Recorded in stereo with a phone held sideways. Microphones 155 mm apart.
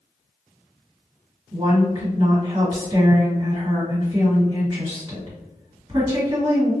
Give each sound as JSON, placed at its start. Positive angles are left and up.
{"t": 1.5, "sound": "a woman speaking", "side_deg": -35, "distance_m": 1.5}